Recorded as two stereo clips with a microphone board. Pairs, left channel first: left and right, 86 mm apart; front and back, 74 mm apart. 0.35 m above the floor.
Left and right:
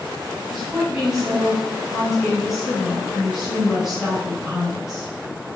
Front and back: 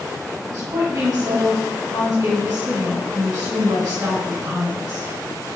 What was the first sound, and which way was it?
A woman speaking, 170° right.